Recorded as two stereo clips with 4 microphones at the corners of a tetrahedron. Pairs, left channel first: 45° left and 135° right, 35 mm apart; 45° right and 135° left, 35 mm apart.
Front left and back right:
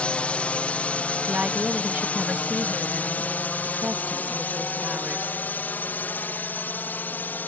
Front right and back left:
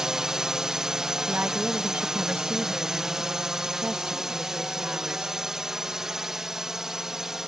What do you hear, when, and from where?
0.0 s a drone: 70° left; by 7.5 s 60° left
1.3 s a woman speaking: 175° left